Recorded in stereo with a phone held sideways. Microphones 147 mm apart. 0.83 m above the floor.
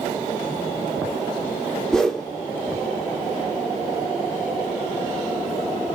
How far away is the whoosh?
About 0.5 m.